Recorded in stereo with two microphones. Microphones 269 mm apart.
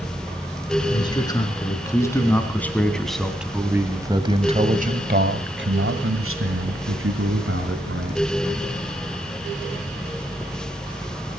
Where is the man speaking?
15° left (ahead or behind), 4 m; by 8.4 s 50° right (ahead or behind), 3.5 m.